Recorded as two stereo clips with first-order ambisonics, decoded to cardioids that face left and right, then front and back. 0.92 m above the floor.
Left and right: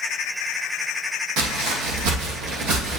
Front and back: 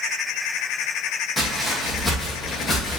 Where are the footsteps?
90° right, 2.5 m; by 3.0 s 65° right, 2 m.